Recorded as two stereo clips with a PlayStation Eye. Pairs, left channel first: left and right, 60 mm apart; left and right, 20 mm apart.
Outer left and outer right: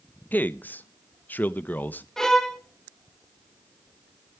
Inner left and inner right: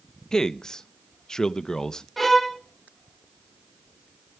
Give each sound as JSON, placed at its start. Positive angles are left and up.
{"t": 0.3, "sound": "a man speaking", "side_deg": 30, "distance_m": 0.7}
{"t": 2.2, "sound": "a violin", "side_deg": 10, "distance_m": 1.2}